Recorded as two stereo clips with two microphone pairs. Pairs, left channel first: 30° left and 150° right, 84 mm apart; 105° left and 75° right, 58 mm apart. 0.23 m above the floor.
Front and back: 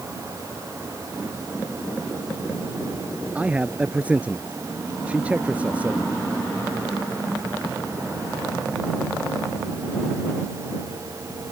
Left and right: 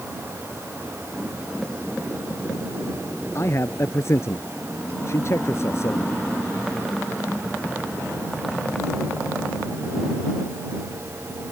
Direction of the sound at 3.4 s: 135° left.